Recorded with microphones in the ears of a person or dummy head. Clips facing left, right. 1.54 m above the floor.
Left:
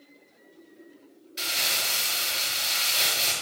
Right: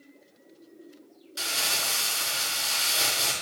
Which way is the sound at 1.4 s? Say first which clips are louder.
Right 1 dB; 70° right (ahead or behind).